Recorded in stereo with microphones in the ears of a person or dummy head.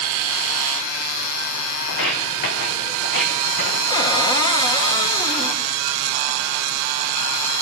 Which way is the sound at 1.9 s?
60° left (ahead or behind).